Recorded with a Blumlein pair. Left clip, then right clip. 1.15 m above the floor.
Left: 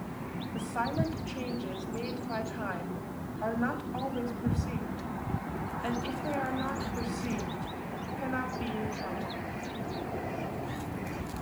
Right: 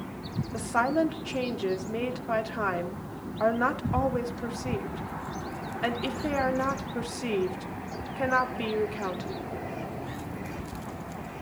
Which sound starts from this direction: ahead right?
A woman speaking, at 0.5 s.